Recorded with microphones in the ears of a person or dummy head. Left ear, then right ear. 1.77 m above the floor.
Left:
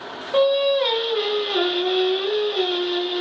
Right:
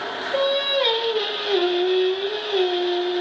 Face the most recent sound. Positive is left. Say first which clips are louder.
# left 3 dB
turn(degrees=5)  # may be behind; listen again after turning